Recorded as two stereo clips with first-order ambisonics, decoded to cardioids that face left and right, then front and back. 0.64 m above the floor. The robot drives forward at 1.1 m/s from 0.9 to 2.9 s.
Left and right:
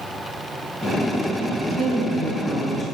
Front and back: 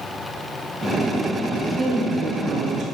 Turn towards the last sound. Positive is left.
turn(degrees=-165)